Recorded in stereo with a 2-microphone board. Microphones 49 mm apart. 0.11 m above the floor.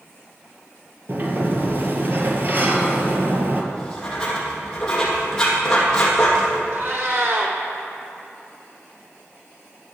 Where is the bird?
No bird in this recording.